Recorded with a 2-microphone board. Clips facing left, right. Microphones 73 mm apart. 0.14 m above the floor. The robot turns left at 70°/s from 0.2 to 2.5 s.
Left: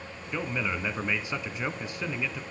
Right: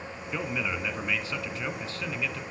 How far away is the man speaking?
About 1.0 m.